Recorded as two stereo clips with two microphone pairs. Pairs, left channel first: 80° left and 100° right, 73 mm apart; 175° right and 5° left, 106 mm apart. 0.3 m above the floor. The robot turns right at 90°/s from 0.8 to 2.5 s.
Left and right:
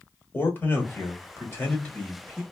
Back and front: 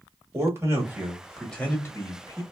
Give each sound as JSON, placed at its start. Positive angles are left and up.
{"t": 0.3, "sound": "a man speaking", "azimuth_deg": 40, "distance_m": 1.1}